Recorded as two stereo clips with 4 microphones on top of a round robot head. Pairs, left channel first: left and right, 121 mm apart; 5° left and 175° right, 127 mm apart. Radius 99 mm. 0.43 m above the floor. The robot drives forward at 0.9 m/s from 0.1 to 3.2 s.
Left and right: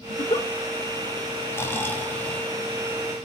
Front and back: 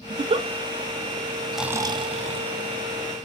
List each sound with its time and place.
0.1 s a giggle: 125° left, 0.5 m; by 0.5 s 150° left, 0.7 m
1.5 s snoring: 85° left, 0.5 m; by 2.6 s 170° left, 1.1 m